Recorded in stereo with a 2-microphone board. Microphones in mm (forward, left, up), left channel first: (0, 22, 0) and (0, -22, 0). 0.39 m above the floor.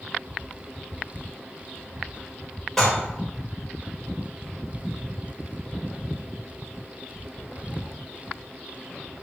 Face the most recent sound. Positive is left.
turn(degrees=5)  # may be behind; listen again after turning